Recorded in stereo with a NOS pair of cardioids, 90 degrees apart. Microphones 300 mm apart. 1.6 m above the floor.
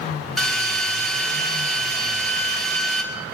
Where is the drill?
Straight ahead, 4.5 m.